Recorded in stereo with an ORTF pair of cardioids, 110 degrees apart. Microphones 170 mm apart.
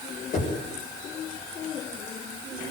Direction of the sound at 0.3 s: 45° left.